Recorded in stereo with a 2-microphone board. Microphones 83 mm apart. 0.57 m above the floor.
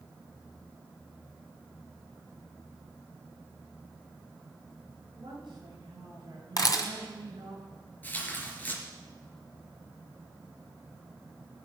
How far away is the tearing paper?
About 3.5 m.